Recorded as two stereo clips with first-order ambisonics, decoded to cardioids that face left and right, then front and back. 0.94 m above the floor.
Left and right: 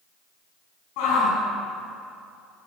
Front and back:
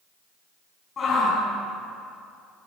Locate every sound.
1.0 s a shout: 65° left, 9 m